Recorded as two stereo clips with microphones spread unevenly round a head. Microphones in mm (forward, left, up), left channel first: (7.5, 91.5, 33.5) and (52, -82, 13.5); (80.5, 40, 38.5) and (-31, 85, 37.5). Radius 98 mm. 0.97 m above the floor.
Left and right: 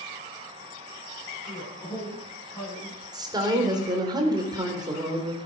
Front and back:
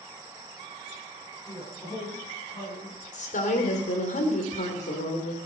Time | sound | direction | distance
1.5 | a man speaking | 35° left | 9 m
3.1 | a woman speaking | 10° right | 3.5 m